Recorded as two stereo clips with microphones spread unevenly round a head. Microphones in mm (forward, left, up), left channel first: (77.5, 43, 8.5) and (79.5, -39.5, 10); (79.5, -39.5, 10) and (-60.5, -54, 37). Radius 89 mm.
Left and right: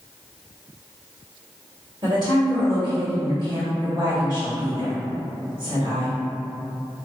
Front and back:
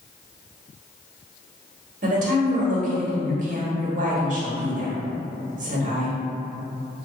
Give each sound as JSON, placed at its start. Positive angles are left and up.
{"t": 2.0, "sound": "a woman speaking", "azimuth_deg": -145, "distance_m": 1.0}